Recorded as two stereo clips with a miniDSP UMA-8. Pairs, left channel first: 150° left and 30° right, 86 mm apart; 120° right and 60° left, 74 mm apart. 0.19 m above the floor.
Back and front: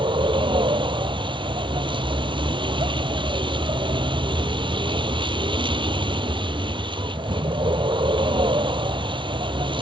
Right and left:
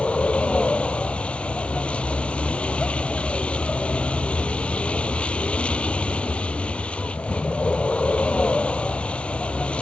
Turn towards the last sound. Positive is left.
turn(degrees=-45)